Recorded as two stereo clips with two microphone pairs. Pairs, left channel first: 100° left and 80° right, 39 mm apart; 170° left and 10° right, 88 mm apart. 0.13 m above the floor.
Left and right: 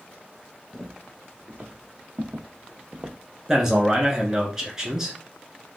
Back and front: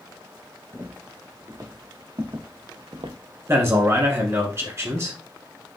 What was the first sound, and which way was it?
Footsteps, 55° right.